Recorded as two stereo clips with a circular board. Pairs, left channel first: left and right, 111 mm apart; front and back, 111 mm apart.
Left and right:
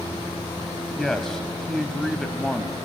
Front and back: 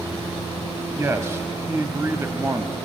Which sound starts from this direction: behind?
A man speaking, at 1.0 s.